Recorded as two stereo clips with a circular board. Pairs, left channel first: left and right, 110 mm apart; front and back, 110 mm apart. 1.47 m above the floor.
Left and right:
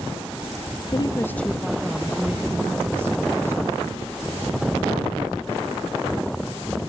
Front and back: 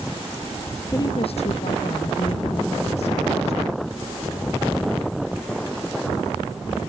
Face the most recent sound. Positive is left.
turn(degrees=-25)